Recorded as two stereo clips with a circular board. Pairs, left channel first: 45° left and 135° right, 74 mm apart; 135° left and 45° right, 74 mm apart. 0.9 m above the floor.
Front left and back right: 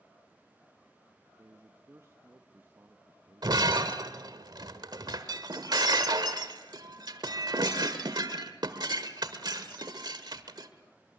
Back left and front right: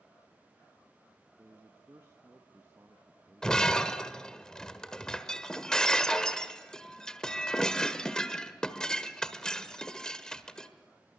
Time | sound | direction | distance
1.4 | a man speaking | 90° right | 1.2 m
3.4 | breaking glass | 145° right | 1.4 m